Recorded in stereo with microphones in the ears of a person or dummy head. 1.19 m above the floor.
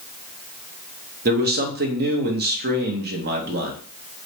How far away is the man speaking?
About 0.7 m.